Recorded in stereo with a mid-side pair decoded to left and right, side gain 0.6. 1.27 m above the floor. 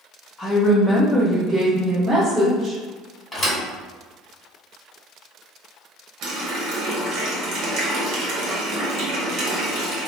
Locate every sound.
0.4 s a woman speaking: 30° left, 0.6 m; by 2.8 s 40° right, 1.4 m
3.3 s a thud: 15° left, 1.6 m
6.2 s a running tap: 60° right, 1.0 m